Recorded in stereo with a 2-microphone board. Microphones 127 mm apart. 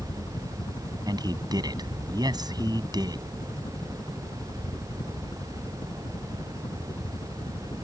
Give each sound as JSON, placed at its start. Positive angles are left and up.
{"t": 0.0, "sound": "a helicopter", "side_deg": 30}
{"t": 1.1, "sound": "a man speaking", "side_deg": -30}